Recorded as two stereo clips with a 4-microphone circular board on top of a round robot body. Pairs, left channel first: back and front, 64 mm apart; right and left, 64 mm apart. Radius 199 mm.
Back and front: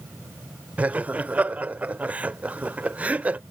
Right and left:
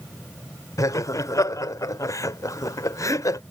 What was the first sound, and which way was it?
Laughter, 65° right.